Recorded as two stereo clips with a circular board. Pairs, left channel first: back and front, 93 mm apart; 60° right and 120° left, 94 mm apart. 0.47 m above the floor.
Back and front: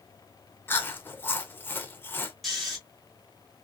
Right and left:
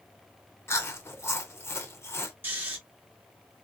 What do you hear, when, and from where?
0.7 s chewing: 115° right, 0.6 m
2.4 s snoring: 90° left, 1.1 m